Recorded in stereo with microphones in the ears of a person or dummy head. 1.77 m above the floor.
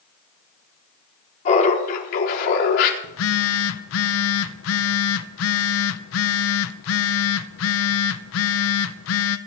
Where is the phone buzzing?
70° left (ahead or behind), 0.9 m.